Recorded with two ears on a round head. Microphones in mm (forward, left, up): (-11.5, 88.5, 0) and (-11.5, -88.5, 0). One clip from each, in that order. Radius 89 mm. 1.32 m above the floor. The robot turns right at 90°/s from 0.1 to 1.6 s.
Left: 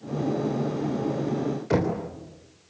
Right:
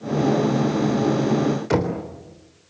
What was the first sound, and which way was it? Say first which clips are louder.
Knocking: even; 25° right (ahead or behind).